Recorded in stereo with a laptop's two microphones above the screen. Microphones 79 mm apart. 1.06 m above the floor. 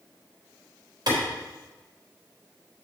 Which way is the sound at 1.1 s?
60° right (ahead or behind).